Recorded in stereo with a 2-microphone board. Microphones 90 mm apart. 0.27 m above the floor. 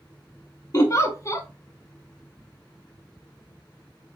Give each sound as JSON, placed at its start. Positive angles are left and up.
{"t": 0.7, "sound": "a giggle", "side_deg": 40, "distance_m": 0.8}